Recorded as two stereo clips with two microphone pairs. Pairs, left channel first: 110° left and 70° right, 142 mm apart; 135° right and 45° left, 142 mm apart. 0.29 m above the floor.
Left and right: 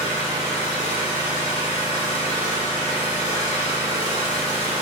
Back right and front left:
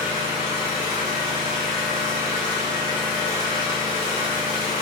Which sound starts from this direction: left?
An engine running, at 0.0 s.